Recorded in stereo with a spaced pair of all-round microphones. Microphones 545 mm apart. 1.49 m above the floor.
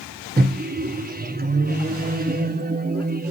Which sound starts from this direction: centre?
A microwave, at 0.4 s.